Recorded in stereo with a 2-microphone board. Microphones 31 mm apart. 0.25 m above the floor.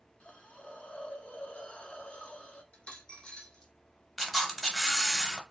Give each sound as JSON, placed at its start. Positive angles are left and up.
{"t": 0.2, "sound": "a hiss", "side_deg": 40, "distance_m": 0.6}
{"t": 2.7, "sound": "a dropped coin", "side_deg": 35, "distance_m": 1.1}
{"t": 4.2, "sound": "a camera shutter", "side_deg": 5, "distance_m": 0.8}